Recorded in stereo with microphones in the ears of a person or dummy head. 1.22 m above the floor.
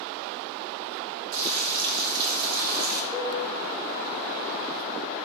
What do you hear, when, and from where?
1.3 s frying: 80° right, 3.5 m
3.1 s a cowbell: 55° right (ahead or behind), 1.6 m